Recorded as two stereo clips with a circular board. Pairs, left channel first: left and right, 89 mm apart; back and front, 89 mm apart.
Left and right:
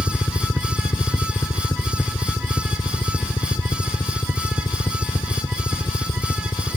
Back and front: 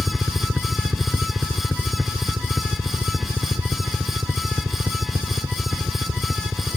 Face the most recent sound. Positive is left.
turn(degrees=60)